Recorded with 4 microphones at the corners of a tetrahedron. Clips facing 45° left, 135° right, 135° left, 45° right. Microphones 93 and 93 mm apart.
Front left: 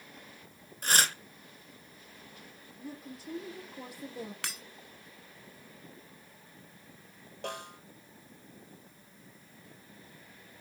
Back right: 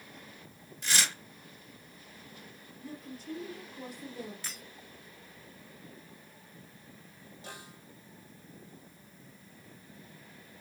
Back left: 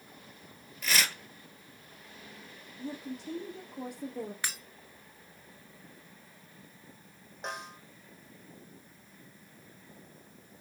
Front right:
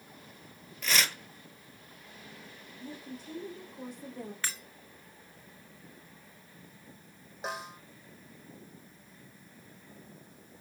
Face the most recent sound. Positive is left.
turn(degrees=40)